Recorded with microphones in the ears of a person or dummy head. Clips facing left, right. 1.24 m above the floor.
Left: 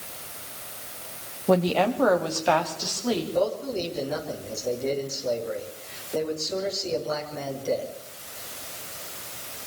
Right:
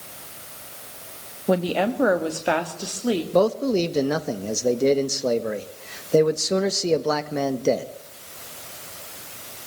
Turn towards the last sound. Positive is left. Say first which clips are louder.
# right 6 dB
turn(degrees=-75)  # may be behind; listen again after turning